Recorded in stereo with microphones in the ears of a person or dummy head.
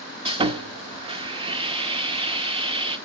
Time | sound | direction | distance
0.2 | sawing | 30° right (ahead or behind) | 1.2 m